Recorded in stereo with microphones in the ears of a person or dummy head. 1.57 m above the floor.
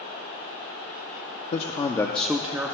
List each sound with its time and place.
1.5 s a man speaking: 45° left (ahead or behind), 0.5 m; by 2.7 s 10° right (ahead or behind), 0.7 m